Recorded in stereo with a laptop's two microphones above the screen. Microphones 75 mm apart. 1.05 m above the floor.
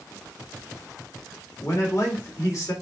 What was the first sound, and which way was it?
A man speaking, 45° left (ahead or behind).